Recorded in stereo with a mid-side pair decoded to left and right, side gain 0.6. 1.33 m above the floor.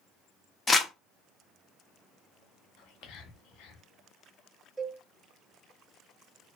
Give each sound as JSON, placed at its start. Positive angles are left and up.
{"t": 0.7, "sound": "crumpling", "azimuth_deg": 15, "distance_m": 0.7}
{"t": 2.8, "sound": "whispering", "azimuth_deg": 70, "distance_m": 0.9}
{"t": 4.8, "sound": "a cowbell", "azimuth_deg": -5, "distance_m": 1.5}